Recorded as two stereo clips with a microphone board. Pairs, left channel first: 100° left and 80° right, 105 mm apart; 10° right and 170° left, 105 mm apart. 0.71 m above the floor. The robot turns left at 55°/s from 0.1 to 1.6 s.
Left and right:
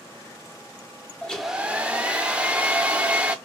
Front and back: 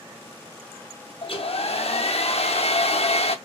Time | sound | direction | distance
1.2 | a hair dryer | 20° left | 0.8 m